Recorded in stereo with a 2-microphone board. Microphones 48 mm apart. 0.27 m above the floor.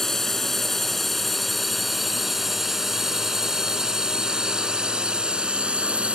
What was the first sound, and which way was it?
A drone, 5° left (ahead or behind).